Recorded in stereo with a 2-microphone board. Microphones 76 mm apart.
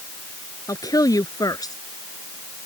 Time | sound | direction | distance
0.7 | a woman speaking | 55° left (ahead or behind) | ?